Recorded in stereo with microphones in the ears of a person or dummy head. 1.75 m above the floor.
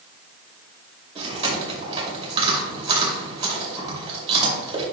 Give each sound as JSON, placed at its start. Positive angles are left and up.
{"t": 1.1, "sound": "chewing", "side_deg": -30, "distance_m": 2.5}